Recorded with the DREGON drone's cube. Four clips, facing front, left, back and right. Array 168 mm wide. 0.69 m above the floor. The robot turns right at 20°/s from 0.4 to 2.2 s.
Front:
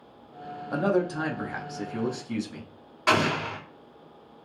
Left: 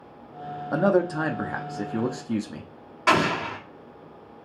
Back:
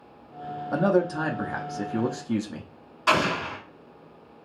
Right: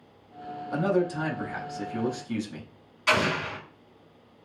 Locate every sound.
0.7 s a man speaking: 100° left, 0.8 m; by 2.7 s 130° left, 0.8 m
3.1 s an explosion: 70° left, 1.7 m